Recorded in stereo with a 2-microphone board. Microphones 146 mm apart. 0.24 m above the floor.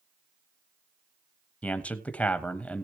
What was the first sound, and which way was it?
A man speaking, 10° left (ahead or behind).